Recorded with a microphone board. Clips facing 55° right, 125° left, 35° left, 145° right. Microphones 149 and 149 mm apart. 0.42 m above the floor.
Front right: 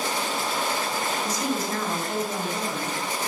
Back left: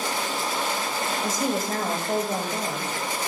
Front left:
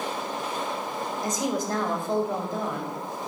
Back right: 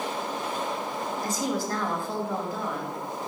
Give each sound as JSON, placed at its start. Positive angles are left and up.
{"t": 1.2, "sound": "a woman speaking", "azimuth_deg": 100, "distance_m": 2.5}